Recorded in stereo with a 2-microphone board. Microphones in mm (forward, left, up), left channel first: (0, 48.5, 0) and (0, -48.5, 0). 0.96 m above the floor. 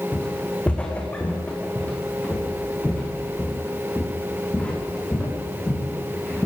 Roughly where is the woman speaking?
No woman speaking in this recording.